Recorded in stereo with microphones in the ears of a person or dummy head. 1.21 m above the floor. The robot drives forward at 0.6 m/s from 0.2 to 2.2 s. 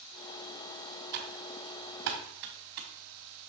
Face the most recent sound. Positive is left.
turn(degrees=-50)  # may be behind; listen again after turning